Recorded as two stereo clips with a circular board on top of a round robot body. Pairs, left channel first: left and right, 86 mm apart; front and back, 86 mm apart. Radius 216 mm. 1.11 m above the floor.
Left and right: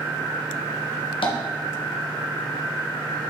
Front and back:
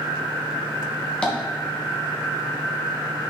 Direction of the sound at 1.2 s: 80° left.